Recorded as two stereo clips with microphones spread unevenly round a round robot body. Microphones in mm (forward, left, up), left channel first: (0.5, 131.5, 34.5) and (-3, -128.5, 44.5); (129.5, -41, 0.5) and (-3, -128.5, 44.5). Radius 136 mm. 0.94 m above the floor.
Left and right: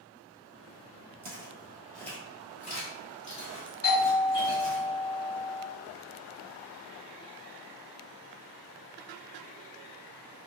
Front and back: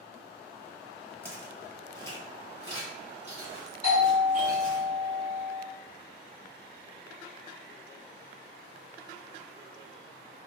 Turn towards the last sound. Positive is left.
turn(degrees=50)